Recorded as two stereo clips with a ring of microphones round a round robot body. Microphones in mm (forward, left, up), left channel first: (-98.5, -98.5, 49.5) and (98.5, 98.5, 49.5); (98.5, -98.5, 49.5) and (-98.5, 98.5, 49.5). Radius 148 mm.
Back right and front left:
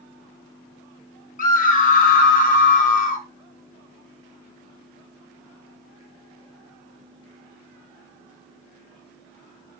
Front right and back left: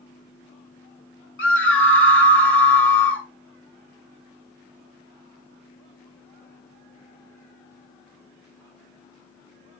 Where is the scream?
80° right, 1.1 m.